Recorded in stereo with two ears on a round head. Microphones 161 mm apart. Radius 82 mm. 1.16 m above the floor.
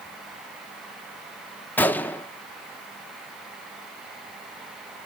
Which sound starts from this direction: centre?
A gunshot, at 1.8 s.